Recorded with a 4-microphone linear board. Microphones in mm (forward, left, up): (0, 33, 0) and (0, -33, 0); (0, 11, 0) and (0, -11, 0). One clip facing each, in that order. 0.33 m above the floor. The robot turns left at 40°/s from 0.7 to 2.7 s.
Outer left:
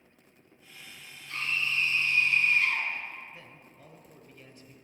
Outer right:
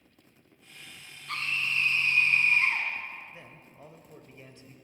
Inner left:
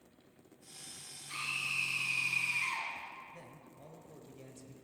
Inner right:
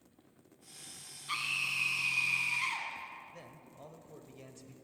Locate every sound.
1.3 s a scream: 95° right, 2.5 m; by 2.9 s 150° right, 2.5 m
3.3 s a man speaking: 20° right (ahead or behind), 1.0 m